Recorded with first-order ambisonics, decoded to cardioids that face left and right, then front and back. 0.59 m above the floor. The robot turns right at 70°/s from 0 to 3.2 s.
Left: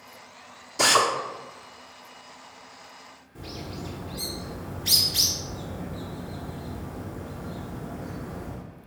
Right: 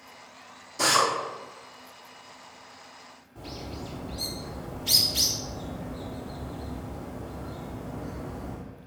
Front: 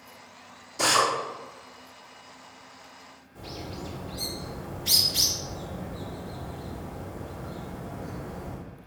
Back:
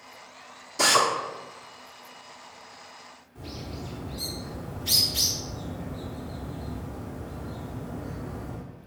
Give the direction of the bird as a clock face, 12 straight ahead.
9 o'clock.